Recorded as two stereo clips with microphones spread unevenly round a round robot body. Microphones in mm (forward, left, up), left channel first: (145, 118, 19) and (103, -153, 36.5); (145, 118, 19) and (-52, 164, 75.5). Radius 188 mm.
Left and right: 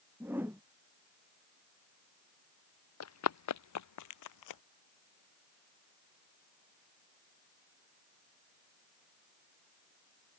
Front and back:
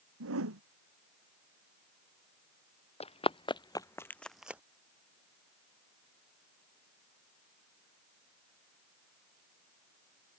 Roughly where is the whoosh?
Behind.